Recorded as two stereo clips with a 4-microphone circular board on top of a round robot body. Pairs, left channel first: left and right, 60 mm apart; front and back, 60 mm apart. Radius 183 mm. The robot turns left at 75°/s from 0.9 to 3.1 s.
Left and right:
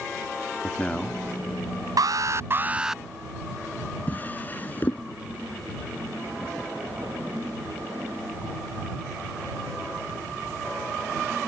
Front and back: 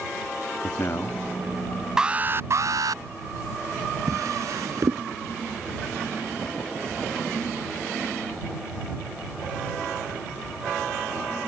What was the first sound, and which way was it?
A man speaking, 25° left.